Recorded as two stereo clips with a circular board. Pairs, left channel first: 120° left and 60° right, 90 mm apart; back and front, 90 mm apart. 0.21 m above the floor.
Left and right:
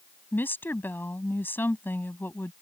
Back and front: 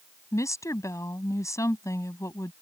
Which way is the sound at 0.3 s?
170° left.